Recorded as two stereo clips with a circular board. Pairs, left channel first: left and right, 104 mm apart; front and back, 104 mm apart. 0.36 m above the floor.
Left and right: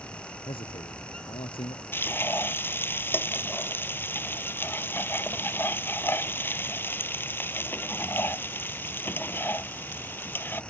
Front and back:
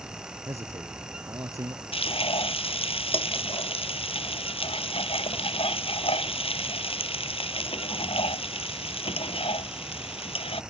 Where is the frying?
20° left.